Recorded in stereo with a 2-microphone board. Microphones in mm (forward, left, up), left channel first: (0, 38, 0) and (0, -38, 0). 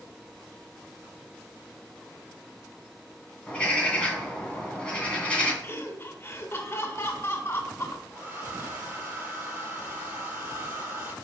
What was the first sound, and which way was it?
A bird, 15° left (ahead or behind).